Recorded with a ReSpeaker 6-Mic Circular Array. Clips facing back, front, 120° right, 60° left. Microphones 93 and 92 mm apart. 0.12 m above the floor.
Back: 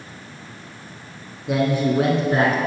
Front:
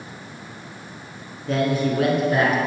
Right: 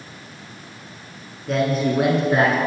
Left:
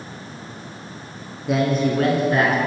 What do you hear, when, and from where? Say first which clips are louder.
1.5 s a man speaking: back 1 dB, left 1 dB; 125° left, 1.1 m; by 2.6 s 155° right, 1.4 m